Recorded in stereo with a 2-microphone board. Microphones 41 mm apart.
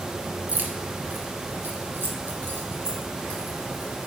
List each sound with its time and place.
0.5 s keys jangling: 40° right (ahead or behind), 1.2 m; by 4.1 s 55° right (ahead or behind), 3 m